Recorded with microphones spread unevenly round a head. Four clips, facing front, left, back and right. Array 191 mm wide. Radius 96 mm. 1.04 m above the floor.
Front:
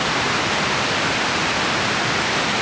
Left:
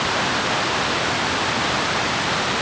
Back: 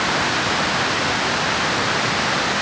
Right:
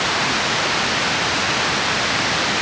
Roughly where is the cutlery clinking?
I don't hear cutlery clinking.